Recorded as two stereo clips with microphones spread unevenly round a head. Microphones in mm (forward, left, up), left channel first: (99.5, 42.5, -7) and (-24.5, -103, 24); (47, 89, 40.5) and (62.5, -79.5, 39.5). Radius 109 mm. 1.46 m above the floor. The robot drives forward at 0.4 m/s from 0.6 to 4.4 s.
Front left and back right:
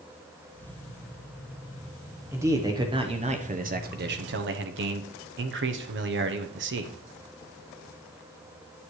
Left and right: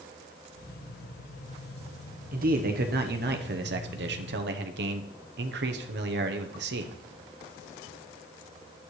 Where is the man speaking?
50° right, 1.1 m; by 6.9 s 100° right, 0.8 m.